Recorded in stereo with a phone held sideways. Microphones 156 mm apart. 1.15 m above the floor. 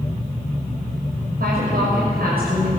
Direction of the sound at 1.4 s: 80° right.